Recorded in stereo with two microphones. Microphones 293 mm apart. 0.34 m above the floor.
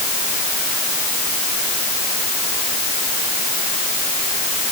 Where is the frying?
No frying in this recording.